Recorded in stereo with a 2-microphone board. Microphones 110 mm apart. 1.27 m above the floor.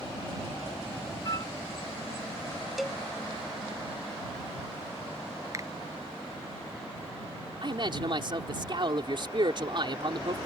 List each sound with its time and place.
1.2 s a flute: 35° left (ahead or behind)
2.8 s a cowbell: centre (ahead or behind)
5.5 s a finger snap: 30° right (ahead or behind)
7.6 s a man speaking: 45° right (ahead or behind)